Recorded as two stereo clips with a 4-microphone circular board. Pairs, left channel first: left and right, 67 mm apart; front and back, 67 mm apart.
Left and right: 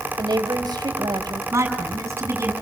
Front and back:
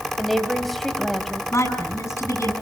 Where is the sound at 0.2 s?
90° right, 3.5 m.